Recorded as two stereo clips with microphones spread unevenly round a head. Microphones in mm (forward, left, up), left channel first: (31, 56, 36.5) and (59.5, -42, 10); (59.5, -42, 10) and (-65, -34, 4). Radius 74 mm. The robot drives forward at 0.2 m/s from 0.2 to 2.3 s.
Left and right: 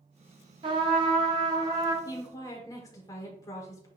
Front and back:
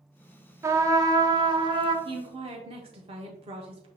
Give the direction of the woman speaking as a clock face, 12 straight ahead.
6 o'clock.